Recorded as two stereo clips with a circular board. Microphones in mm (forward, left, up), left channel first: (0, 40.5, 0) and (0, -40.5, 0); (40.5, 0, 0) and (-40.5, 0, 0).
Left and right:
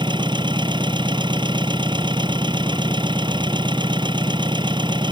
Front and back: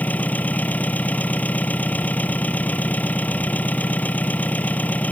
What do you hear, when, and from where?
0.0 s an engine running: 70° right